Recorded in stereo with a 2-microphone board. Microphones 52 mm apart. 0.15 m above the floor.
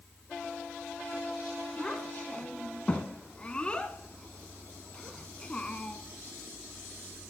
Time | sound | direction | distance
1.8 | a child speaking | 20° left (ahead or behind) | 0.8 m